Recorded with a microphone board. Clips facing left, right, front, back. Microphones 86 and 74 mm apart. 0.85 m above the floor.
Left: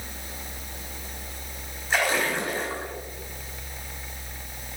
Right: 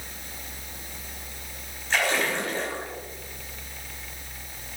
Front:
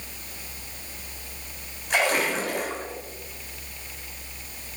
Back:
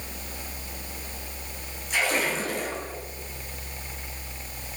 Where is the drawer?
No drawer in this recording.